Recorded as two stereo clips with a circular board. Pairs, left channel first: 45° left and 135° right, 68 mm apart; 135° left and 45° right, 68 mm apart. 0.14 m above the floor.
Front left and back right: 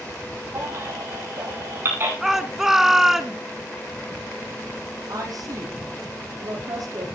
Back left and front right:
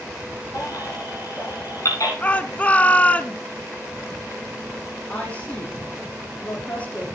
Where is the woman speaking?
155° right, 6 m.